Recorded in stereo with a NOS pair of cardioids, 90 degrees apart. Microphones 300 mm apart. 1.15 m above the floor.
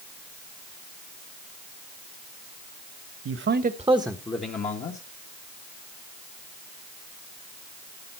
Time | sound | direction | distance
3.2 | a man speaking | 50° right | 1.3 m